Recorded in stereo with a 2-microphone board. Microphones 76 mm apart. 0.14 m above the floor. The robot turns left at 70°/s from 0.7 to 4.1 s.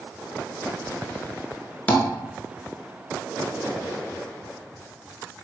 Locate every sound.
1.9 s tapping: 25° left (ahead or behind), 0.7 m; by 2.0 s 30° left (ahead or behind), 0.7 m